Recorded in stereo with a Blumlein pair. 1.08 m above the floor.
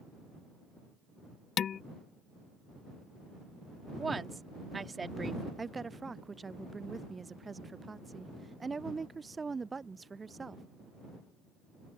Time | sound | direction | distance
1.6 | dishes clattering | 25° left | ?
4.0 | a woman speaking | 10° right | ?
5.6 | a woman speaking | 10° right | ?